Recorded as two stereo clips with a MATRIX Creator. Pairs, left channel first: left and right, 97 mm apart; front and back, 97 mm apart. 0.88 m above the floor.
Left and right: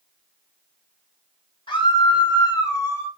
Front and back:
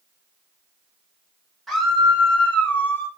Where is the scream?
90° left, 1.7 m; by 3.1 s 45° left, 1.1 m.